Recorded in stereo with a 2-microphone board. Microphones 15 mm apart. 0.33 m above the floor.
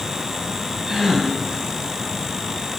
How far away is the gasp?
About 4.5 m.